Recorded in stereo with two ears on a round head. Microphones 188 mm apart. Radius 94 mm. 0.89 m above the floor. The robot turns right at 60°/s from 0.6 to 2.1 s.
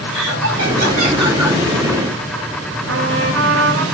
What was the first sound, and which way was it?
Laughter, 60° right.